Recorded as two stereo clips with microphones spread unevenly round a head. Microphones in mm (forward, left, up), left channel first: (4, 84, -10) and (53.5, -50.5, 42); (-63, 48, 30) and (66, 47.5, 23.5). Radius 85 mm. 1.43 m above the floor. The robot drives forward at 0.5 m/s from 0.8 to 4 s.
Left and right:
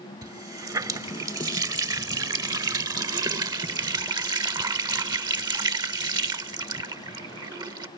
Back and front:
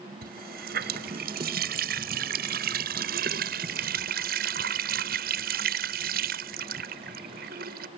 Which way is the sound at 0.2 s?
5° right.